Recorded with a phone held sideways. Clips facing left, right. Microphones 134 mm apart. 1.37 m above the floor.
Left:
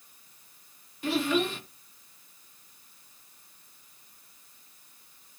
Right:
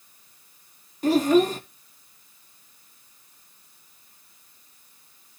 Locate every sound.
1.0 s a child speaking: 40° right (ahead or behind), 1.1 m